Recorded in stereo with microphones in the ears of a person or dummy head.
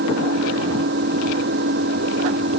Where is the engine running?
65° right (ahead or behind).